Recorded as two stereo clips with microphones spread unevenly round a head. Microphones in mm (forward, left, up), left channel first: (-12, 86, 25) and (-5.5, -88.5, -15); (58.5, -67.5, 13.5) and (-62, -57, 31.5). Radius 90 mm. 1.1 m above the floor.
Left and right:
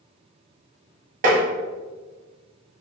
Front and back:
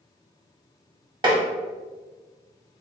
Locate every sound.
1.2 s tapping: 135° right, 1.3 m